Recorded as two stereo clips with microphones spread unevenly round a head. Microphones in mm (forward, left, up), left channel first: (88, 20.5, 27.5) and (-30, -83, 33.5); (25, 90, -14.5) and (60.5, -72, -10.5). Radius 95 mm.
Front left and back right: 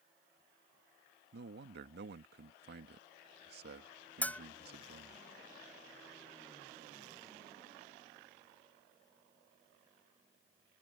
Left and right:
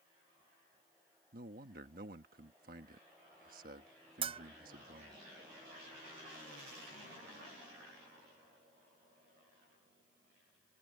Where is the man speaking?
125° right.